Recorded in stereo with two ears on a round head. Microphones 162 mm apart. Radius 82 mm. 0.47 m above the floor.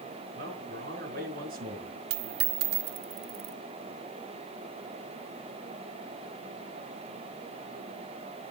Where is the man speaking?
55° right (ahead or behind), 5.5 m.